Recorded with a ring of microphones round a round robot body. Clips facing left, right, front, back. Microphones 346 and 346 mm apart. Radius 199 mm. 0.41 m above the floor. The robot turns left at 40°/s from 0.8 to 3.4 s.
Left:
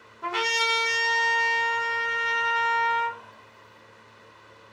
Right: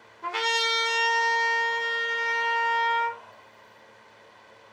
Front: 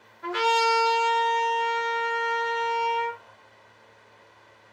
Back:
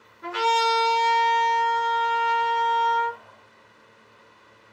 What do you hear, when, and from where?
0.2 s a trumpet: 120° left, 1.3 m; by 3.2 s 25° left, 1.3 m